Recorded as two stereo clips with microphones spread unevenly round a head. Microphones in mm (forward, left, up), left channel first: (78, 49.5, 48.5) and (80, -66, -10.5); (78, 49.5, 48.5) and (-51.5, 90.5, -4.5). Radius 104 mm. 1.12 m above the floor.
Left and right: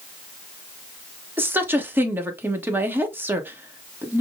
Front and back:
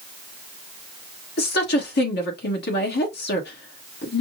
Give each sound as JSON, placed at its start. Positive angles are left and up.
{"t": 1.4, "sound": "a woman speaking", "azimuth_deg": -30, "distance_m": 1.2}